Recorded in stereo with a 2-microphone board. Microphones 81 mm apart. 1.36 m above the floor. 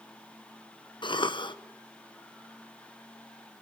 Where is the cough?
75° left (ahead or behind), 0.9 m.